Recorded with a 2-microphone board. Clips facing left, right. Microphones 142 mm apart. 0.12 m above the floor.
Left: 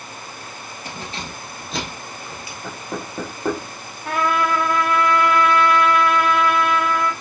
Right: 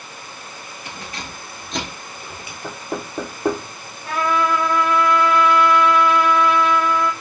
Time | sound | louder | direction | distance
0.8 | keys jangling | left 2 dB | 40° left (ahead or behind) | 1.4 m
2.6 | knocking | right 2 dB | 10° right (ahead or behind) | 1.8 m
4.0 | a trumpet | even | 60° left (ahead or behind) | 1.9 m